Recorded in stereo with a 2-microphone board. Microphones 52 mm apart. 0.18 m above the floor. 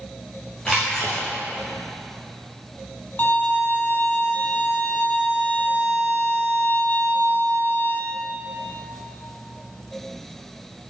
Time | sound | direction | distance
0.7 | a splash | 15° left (ahead or behind) | 3.5 m
3.2 | a violin | 40° left (ahead or behind) | 1.5 m